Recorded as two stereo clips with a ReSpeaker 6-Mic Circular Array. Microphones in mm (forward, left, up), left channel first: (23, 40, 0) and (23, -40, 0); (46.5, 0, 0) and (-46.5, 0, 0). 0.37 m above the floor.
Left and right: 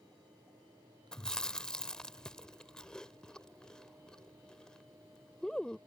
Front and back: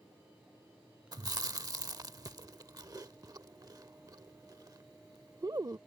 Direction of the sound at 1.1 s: 165° left.